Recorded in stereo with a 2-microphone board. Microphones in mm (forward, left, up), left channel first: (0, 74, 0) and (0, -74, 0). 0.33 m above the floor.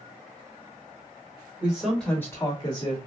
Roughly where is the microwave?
No microwave in this recording.